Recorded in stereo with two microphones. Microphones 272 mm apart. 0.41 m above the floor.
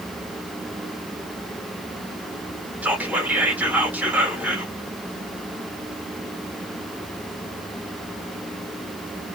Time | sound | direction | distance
2.8 | whispering | 5° right (ahead or behind) | 0.9 m